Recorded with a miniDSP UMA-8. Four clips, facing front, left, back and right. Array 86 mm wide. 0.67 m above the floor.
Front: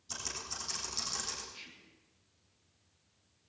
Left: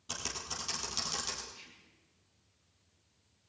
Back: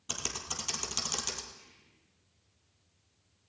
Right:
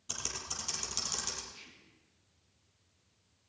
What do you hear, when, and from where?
0.1 s typing on a keyboard: 170° left, 3.5 m
1.5 s whispering: 25° right, 1.5 m